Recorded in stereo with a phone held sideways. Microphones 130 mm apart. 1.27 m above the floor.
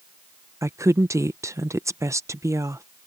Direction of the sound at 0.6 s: 20° right (ahead or behind).